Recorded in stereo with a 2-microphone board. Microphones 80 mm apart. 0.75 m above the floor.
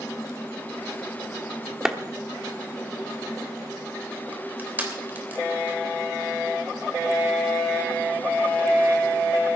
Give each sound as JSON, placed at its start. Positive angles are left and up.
{"t": 1.9, "sound": "a clap", "side_deg": -5, "distance_m": 1.1}
{"t": 4.3, "sound": "crushing", "side_deg": -25, "distance_m": 3.0}